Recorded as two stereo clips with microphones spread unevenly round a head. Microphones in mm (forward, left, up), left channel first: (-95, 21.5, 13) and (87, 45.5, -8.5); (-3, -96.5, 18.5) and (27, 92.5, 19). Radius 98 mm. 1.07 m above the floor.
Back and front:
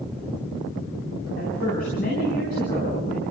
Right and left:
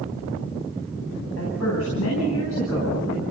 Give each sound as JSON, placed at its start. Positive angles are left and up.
{"t": 1.4, "sound": "a woman speaking", "azimuth_deg": -120, "distance_m": 9.5}